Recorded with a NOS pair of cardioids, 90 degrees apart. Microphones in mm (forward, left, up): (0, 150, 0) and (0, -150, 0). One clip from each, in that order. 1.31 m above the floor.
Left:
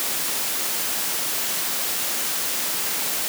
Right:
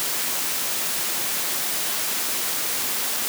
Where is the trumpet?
No trumpet in this recording.